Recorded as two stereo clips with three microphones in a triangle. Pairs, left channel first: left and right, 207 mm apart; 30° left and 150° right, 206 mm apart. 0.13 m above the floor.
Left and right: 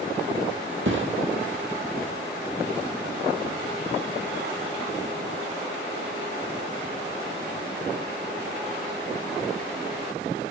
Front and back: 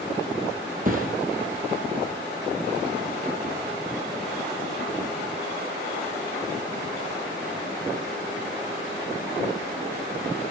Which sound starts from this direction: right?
A thud, at 0.8 s.